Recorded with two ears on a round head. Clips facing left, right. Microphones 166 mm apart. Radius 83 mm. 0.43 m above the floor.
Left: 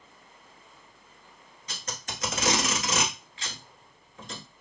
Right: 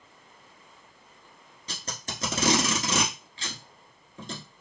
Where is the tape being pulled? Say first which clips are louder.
Right 1 dB; 30° right (ahead or behind), 1.2 m.